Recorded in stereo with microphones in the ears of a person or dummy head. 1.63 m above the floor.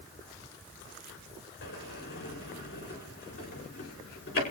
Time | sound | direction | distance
1.6 | a sliding door | 45° left (ahead or behind) | 5.5 m